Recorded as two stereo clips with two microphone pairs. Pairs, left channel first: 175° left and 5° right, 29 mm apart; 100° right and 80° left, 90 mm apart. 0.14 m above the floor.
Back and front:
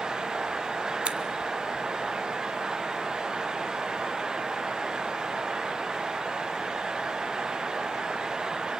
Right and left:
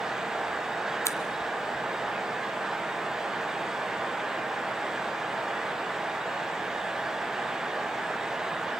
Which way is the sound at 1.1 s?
50° right.